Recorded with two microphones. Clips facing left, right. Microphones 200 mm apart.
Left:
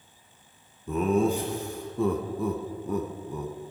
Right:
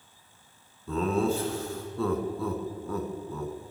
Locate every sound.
0.9 s laughter: 15° left (ahead or behind), 1.1 m